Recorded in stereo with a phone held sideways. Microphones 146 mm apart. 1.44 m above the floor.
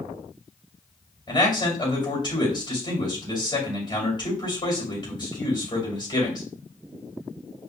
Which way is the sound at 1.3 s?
30° left (ahead or behind).